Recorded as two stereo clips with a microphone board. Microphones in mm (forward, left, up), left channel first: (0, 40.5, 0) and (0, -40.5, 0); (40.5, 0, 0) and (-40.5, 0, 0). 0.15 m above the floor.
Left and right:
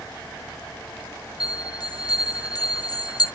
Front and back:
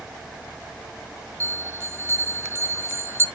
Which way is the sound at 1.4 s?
125° left.